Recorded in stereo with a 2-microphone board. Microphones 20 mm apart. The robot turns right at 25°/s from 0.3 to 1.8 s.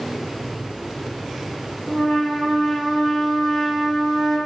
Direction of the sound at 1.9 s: 20° left (ahead or behind).